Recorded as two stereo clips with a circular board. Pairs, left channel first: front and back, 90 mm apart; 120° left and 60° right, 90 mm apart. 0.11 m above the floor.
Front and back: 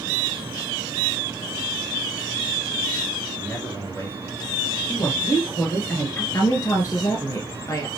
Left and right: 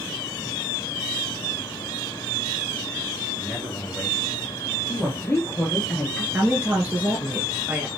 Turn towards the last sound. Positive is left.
turn(degrees=0)